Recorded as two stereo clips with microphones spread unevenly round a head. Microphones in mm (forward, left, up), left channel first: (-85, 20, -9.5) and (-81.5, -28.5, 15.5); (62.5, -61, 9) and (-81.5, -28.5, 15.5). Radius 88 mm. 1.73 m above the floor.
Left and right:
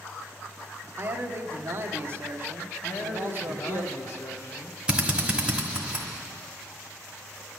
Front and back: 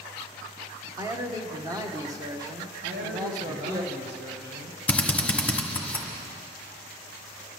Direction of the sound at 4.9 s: 90° right.